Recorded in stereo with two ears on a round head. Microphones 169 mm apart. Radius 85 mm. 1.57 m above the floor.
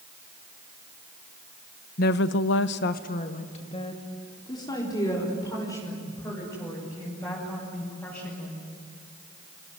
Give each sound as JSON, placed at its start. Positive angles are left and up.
{"t": 2.0, "sound": "a woman speaking", "side_deg": 50, "distance_m": 1.1}